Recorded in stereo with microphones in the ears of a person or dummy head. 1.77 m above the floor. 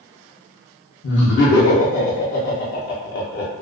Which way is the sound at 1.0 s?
65° left (ahead or behind).